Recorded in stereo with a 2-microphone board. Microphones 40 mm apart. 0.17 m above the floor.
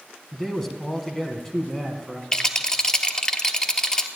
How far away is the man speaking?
About 1.8 m.